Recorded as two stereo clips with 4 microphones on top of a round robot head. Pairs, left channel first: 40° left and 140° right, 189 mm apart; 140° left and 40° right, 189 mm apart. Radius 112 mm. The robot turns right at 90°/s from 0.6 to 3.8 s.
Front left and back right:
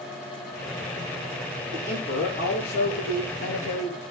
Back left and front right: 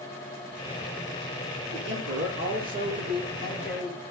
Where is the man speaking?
80° right, 9.5 m; by 4.0 s 105° left, 9.5 m.